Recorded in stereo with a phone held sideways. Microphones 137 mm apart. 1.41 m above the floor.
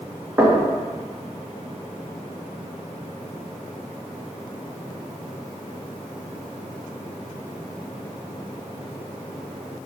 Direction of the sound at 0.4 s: 20° right (ahead or behind).